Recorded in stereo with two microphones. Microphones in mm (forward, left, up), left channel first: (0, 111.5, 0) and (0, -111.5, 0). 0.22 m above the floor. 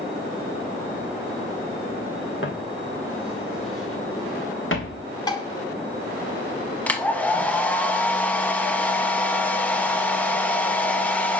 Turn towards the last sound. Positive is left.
turn(degrees=5)  # may be behind; listen again after turning